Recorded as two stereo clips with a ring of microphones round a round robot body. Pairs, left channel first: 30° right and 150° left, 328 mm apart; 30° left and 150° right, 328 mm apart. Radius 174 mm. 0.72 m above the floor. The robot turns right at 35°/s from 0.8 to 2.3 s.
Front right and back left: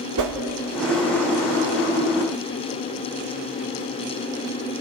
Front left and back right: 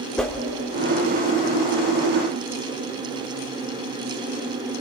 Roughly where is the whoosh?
Behind left.